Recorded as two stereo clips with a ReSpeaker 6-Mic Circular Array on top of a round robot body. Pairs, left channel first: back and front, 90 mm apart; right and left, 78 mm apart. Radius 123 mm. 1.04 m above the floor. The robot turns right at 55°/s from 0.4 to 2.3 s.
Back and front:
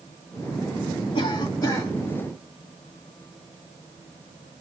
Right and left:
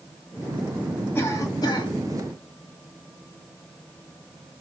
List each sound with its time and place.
1.1 s a cough: 155° right, 1.9 m; by 1.9 s 115° right, 1.9 m